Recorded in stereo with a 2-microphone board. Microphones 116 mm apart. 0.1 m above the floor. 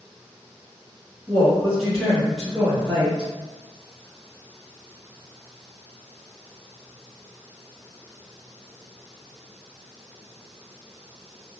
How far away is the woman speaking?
About 1.6 m.